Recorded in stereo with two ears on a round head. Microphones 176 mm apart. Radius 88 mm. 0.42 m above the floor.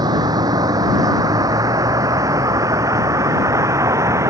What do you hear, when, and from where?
0.0 s a vehicle: 20° right (ahead or behind); by 4.3 s 15° right (ahead or behind)